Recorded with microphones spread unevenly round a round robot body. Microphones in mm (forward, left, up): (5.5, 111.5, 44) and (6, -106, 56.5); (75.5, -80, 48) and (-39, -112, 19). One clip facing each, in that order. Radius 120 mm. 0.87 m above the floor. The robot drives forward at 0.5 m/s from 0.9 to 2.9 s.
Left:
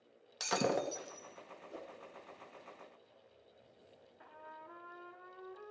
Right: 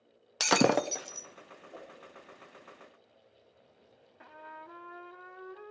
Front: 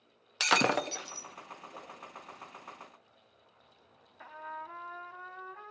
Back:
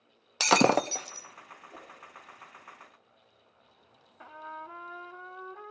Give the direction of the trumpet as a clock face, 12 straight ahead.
3 o'clock.